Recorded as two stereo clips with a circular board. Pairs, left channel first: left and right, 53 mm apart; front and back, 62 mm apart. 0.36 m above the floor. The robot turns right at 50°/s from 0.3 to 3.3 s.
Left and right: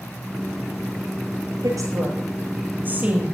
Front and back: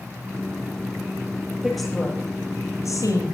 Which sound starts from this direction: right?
A woman speaking, at 1.6 s.